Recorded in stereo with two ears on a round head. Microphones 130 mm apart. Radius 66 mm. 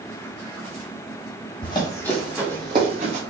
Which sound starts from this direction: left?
Running footsteps, at 1.6 s.